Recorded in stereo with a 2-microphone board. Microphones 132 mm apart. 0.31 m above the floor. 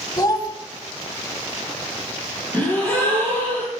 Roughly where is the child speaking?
Left.